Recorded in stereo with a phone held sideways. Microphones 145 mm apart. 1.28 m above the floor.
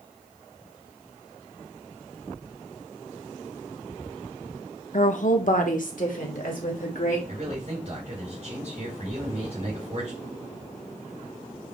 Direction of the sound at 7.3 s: 50° right (ahead or behind).